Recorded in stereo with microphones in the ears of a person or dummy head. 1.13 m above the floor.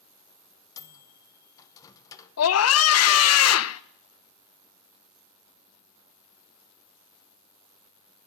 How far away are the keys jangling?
No keys jangling in this recording.